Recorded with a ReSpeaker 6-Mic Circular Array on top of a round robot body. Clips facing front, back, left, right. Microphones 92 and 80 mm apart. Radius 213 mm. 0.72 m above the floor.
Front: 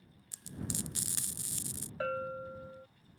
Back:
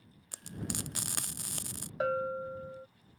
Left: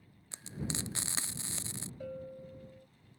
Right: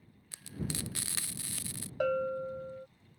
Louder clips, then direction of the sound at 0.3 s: Back 2 dB, even; 155° left.